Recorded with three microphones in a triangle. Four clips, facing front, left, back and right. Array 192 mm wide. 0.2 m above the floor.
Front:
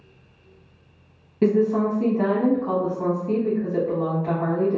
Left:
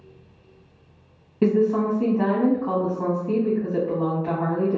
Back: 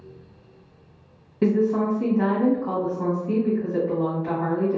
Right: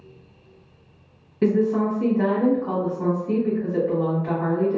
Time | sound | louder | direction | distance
1.4 | a woman speaking | even, front 1 dB | 90° left | 1.0 m